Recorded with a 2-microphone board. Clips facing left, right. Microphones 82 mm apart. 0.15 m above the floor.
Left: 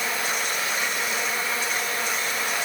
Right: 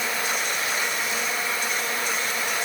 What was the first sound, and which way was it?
Only background noise.